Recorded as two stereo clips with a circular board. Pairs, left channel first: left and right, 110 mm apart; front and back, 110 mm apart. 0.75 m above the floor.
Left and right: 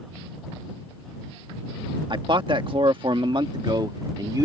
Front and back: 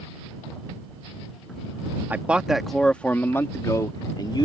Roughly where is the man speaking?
Right.